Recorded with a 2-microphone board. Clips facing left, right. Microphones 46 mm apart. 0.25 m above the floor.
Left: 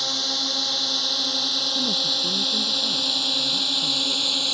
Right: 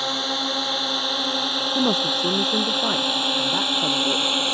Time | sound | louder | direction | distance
0.0 | a drone | right 3 dB | 25° right (ahead or behind) | ?
1.8 | a woman speaking | right 8 dB | 60° right (ahead or behind) | ?